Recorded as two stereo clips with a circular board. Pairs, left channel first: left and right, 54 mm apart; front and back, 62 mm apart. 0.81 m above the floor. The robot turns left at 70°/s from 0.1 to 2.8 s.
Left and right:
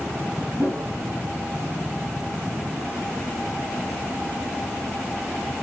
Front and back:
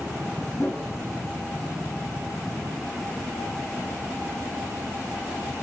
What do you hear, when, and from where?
0.6 s a whoosh: 50° right, 1.3 m; by 0.9 s 70° right, 1.3 m